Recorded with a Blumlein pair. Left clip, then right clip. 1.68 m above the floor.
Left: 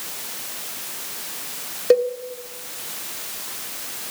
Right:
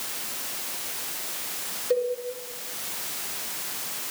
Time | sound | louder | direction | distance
1.9 | a cowbell | left 8 dB | 40° left | 1.1 m